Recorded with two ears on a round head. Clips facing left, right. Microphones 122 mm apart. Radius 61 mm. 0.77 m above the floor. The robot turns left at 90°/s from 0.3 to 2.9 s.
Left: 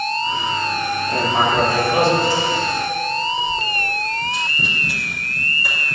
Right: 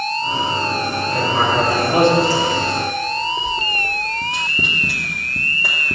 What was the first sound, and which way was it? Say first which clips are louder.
Writing: even; 35° left (ahead or behind).